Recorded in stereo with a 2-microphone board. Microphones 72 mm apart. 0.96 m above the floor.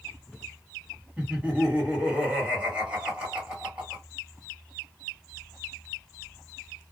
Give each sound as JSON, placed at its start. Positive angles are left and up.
{"t": 1.2, "sound": "laughter", "side_deg": -15, "distance_m": 1.7}